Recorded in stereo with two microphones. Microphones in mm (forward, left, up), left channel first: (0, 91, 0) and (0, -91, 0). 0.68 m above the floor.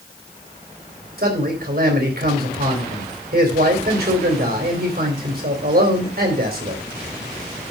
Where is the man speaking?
65° right (ahead or behind), 3.5 m.